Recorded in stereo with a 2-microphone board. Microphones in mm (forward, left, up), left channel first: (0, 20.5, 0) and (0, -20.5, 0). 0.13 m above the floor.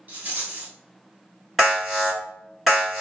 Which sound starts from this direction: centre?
An alarm, at 1.6 s.